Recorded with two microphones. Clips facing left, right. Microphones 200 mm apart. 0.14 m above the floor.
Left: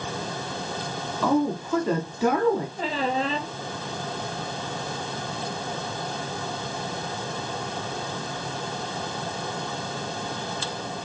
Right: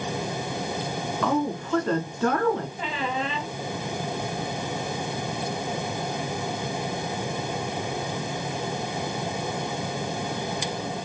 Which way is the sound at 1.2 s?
10° left (ahead or behind).